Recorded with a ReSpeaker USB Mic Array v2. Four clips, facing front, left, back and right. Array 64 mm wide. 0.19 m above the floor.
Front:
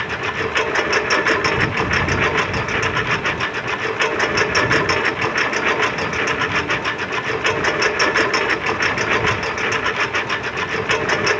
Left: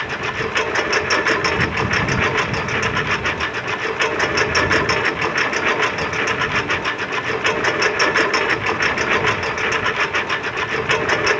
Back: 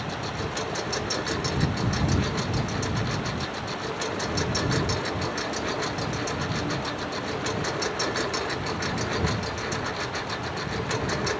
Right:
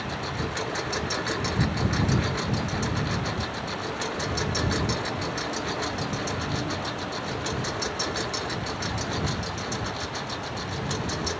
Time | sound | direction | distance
0.0 | a lawn mower | 40° left | ?